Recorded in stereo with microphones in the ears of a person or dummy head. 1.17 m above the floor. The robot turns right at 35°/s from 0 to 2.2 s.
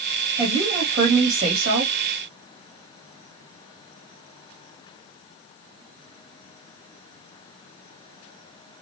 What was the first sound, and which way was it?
A woman speaking, 175° right.